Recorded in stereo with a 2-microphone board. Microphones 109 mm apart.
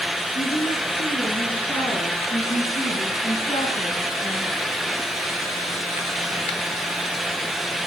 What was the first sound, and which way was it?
A woman speaking, 80° left.